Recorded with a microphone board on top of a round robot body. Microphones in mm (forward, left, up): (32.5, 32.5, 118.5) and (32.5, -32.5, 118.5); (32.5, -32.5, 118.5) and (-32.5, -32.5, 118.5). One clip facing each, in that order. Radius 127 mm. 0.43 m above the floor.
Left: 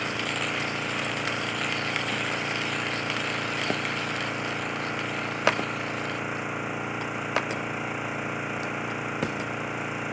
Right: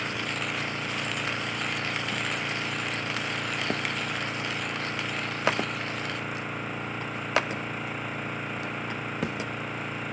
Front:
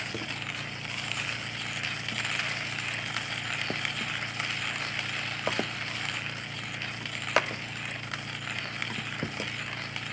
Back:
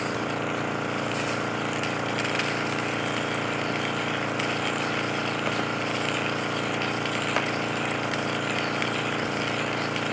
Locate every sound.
0.0 s an engine running: 170° left